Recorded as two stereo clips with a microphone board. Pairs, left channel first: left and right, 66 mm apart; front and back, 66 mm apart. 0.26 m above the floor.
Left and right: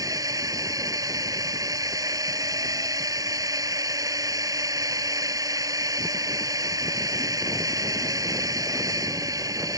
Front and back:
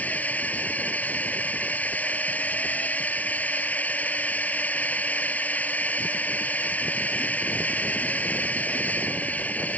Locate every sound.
0.0 s a drone: 65° right